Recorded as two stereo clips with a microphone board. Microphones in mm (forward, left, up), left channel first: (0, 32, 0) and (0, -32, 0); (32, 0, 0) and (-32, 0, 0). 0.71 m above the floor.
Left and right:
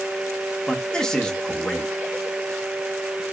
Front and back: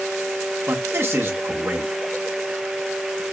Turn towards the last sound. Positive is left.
turn(degrees=165)